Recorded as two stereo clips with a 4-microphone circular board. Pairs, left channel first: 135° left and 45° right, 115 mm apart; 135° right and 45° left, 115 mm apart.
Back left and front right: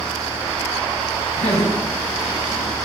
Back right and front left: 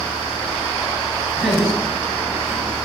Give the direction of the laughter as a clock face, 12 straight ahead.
8 o'clock.